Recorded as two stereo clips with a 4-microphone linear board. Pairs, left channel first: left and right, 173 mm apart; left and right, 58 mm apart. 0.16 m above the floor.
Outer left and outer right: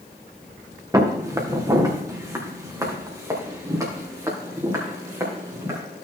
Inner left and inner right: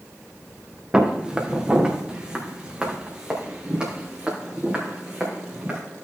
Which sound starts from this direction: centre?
Footsteps, at 0.9 s.